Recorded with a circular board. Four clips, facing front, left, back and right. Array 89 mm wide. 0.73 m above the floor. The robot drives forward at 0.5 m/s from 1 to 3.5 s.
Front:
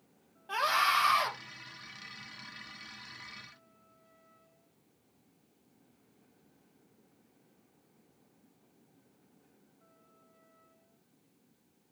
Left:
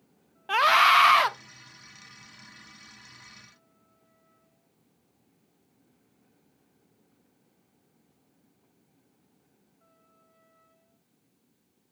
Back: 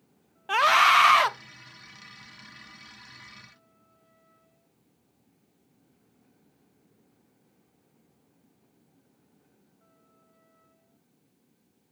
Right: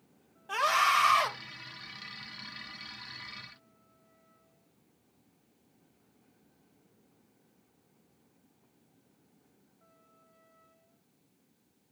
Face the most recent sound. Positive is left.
turn(degrees=165)